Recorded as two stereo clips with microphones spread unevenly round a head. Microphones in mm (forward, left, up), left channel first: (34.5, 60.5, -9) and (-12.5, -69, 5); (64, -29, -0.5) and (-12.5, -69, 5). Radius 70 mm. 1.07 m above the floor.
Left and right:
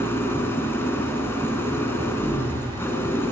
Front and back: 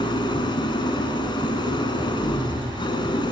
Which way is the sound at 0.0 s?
5° right.